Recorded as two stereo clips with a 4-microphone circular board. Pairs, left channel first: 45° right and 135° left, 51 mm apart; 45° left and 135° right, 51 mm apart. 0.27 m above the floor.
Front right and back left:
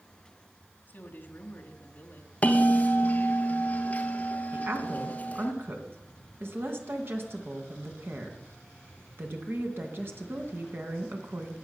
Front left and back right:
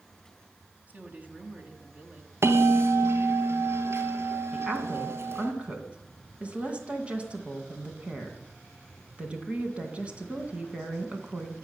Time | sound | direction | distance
0.9 | a woman speaking | 90° right | 2 m
2.4 | a bell | 105° right | 1.4 m
4.5 | a woman speaking | 160° left | 2 m